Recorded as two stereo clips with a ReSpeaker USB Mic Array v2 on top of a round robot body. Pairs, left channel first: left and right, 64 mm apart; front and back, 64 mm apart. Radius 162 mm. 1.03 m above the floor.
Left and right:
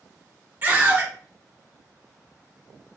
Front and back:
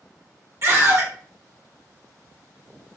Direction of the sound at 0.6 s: 145° right.